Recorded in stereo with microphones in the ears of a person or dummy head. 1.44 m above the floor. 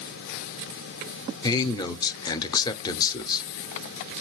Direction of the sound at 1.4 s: 20° left (ahead or behind).